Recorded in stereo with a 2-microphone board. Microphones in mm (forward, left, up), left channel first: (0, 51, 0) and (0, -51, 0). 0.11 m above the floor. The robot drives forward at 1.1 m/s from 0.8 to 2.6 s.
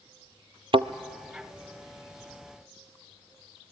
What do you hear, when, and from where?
0.7 s a thud: 60° right (ahead or behind), 0.6 m; by 0.9 s 65° right (ahead or behind), 0.6 m